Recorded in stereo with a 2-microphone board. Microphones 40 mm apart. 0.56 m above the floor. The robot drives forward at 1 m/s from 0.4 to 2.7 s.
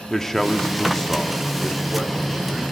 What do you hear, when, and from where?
0.1 s a man speaking: 10° left (ahead or behind), 1.0 m; by 2.6 s 5° left (ahead or behind), 2 m